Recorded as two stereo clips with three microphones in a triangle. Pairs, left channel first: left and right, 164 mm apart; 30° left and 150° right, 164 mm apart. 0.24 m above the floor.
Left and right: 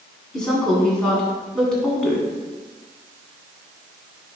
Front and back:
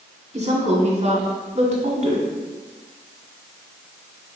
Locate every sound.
0.3 s a woman speaking: 175° left, 1.9 m